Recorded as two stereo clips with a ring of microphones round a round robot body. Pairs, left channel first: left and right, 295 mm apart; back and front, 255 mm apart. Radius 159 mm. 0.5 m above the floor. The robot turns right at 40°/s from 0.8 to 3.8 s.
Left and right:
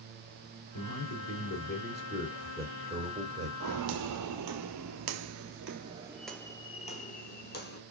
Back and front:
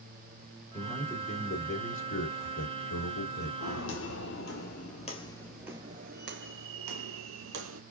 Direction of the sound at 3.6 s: 135° right.